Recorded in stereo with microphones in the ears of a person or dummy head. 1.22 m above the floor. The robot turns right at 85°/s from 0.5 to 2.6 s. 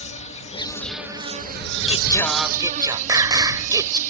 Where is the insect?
140° left; by 4.1 s 40° right.